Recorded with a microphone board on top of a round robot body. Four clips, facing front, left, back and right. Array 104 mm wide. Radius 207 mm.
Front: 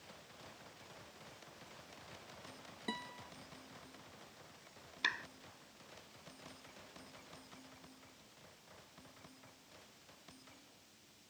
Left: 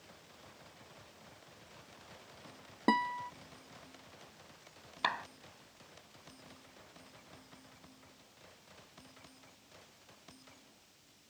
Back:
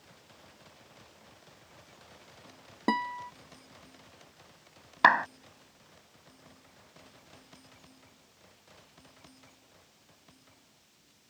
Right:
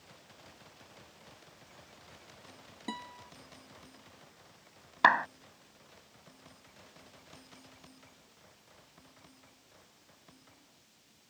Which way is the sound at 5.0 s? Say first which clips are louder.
Right 12 dB, back 20 dB; 150° right.